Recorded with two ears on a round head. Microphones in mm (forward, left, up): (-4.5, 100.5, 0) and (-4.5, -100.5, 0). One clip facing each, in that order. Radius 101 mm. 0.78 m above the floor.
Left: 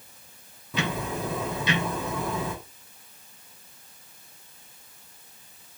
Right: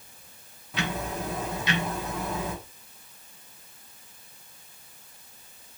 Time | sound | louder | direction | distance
0.7 | ticking | left 2 dB | 75° left (ahead or behind) | 3 m